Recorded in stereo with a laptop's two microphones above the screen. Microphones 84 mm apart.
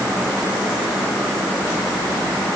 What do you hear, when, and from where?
Only background noise.